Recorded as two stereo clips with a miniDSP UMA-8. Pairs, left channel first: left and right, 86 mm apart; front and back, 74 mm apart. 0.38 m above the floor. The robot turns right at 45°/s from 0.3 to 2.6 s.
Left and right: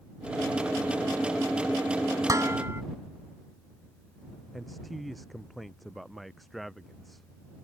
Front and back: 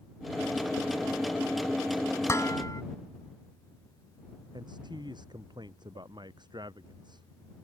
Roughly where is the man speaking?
Behind.